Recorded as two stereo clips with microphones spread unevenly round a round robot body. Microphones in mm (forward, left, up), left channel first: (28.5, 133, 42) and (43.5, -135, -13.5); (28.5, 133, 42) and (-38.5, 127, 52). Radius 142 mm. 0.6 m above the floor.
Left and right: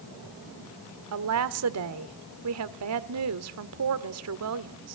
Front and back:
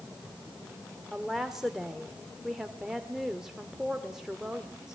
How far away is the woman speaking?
About 1.4 m.